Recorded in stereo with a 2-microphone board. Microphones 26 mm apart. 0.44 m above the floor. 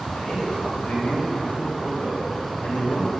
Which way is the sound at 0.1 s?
65° left (ahead or behind).